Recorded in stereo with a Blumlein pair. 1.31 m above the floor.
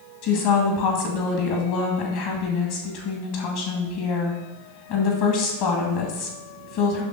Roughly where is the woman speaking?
Ahead left.